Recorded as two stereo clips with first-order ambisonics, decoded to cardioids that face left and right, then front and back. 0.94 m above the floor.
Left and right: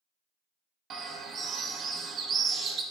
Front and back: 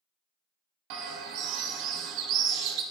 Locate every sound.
0.9 s a bird: 150° right, 0.5 m